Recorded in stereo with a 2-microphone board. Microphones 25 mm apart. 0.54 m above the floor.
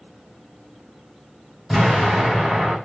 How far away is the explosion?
About 1.8 m.